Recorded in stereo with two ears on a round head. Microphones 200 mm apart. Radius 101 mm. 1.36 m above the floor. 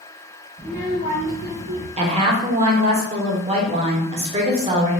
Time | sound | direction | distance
0.6 | a child speaking | 35° right (ahead or behind) | 1.4 m
2.0 | a woman speaking | 30° right (ahead or behind) | 0.8 m